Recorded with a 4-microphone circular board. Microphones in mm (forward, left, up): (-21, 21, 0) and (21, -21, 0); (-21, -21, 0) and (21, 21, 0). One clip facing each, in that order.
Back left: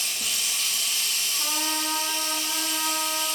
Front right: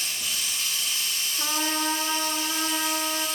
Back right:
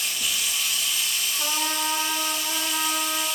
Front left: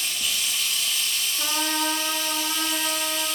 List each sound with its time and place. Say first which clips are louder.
0.0 s running water: even, even; 140° left, 1.5 m
1.4 s a trumpet: front right 3 dB, front left 2 dB; 10° right, 2.5 m